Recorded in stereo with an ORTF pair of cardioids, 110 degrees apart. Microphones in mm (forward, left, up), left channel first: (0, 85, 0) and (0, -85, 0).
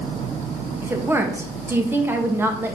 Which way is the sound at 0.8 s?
15° right.